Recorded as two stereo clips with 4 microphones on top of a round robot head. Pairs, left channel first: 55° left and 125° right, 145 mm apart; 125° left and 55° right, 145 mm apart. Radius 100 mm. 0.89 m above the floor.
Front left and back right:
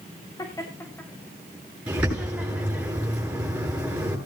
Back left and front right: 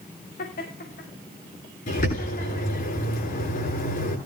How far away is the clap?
I don't hear a clap.